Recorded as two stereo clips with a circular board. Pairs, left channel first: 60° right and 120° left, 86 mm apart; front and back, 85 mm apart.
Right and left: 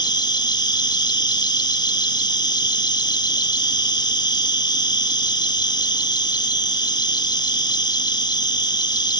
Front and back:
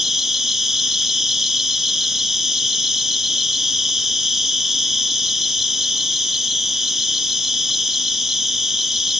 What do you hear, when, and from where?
0.0 s an insect: 95° right, 1.3 m